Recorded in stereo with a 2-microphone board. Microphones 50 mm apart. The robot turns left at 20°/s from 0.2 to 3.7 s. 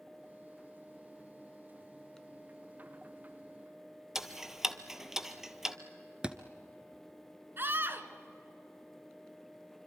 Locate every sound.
4.2 s ticking: 10° right (ahead or behind), 1.0 m
6.2 s a thud: 20° right (ahead or behind), 1.2 m
7.6 s a scream: 45° right (ahead or behind), 1.7 m